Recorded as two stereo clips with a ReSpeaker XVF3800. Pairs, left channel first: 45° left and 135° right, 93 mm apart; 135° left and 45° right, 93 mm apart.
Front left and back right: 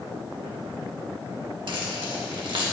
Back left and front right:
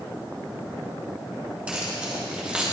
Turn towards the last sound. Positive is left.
turn(degrees=-120)